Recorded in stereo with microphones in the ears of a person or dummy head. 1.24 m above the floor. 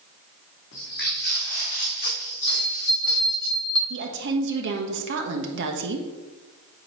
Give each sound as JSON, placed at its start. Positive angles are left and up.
{"t": 0.7, "sound": "footsteps", "side_deg": 60, "distance_m": 3.0}
{"t": 2.5, "sound": "a bell", "side_deg": -20, "distance_m": 1.4}
{"t": 3.9, "sound": "a woman speaking", "side_deg": -60, "distance_m": 1.2}